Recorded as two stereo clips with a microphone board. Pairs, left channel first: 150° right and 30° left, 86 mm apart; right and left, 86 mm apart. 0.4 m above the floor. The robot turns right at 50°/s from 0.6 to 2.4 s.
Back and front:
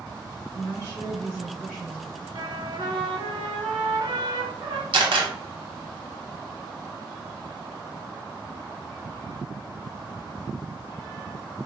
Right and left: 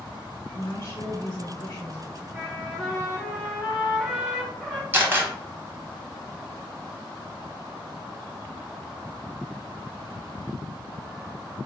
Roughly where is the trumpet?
Ahead.